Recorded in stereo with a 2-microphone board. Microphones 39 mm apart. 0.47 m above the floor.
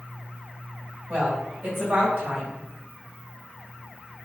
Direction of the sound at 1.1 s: 65° right (ahead or behind).